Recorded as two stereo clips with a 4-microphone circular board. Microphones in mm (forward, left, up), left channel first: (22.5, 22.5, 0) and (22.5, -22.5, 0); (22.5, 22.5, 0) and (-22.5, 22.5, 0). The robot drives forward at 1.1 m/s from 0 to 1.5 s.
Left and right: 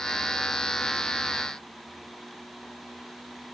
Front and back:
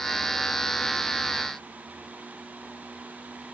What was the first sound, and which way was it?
Only background noise.